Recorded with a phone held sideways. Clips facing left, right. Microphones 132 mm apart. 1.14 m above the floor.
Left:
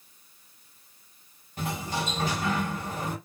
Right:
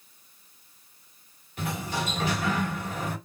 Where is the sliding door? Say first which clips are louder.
Even; 40° left (ahead or behind), 2 m.